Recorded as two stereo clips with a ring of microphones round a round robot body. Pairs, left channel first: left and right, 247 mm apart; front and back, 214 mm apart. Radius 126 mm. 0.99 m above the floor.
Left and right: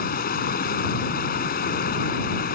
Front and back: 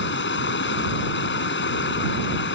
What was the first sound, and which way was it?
Running water, 35° left.